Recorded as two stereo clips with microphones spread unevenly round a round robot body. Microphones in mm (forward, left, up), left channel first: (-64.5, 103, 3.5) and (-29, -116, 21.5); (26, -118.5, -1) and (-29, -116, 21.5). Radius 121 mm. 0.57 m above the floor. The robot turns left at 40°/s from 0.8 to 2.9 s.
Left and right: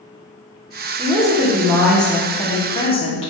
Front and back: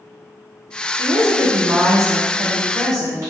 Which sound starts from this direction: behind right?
A woman speaking, at 1.0 s.